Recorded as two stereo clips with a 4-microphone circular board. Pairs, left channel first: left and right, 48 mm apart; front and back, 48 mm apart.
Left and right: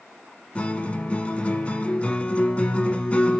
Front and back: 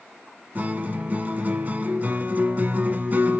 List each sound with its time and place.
0.6 s a guitar: 145° left, 1.1 m